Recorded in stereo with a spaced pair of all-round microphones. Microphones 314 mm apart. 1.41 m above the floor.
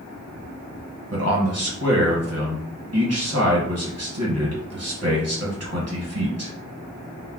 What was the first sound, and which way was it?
A man speaking, 50° right (ahead or behind).